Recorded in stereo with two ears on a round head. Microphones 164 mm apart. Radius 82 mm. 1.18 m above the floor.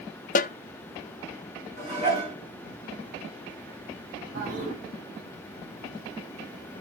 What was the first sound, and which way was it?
A snare drum, 45° left (ahead or behind).